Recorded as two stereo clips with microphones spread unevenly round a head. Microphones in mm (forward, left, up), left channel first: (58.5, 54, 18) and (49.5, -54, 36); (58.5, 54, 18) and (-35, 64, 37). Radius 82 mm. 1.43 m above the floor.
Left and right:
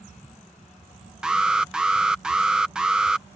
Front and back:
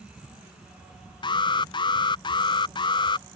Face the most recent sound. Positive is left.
turn(degrees=-10)